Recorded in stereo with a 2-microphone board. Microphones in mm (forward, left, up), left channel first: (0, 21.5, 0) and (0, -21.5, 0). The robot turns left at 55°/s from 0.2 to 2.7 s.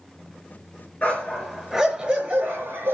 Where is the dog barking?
40° left, 5 m; by 3.0 s 55° right, 5 m.